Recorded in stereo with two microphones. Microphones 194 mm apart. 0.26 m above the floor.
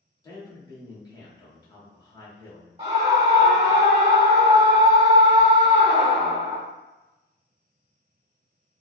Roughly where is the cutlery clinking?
I don't hear cutlery clinking.